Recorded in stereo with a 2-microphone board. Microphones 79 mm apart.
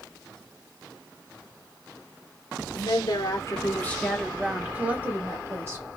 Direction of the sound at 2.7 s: 65° left (ahead or behind).